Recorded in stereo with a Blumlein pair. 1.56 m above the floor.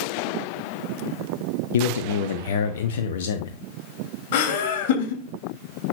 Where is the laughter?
50° left, 3.5 m.